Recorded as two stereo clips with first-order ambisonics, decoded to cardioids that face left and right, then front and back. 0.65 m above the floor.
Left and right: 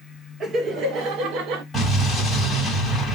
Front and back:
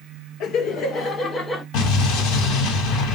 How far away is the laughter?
About 1.3 m.